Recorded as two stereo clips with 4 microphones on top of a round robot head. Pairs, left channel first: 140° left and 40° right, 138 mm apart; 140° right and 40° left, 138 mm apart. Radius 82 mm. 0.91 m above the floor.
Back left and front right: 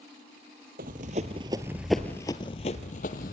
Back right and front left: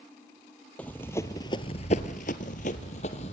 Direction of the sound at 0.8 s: 60° right.